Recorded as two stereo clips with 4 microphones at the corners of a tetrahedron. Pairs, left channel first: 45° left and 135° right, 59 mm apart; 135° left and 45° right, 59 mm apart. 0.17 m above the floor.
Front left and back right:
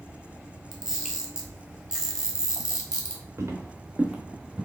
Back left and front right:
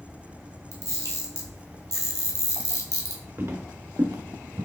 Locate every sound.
0.7 s a camera shutter: 55° right, 1.3 m
3.4 s footsteps: 100° right, 1.2 m; by 4.6 s 55° right, 1.2 m